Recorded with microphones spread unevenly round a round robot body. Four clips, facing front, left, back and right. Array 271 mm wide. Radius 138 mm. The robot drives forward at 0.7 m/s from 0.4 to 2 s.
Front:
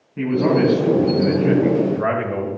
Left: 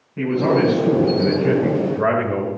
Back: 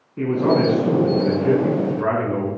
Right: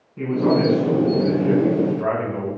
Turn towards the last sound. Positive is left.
turn(degrees=50)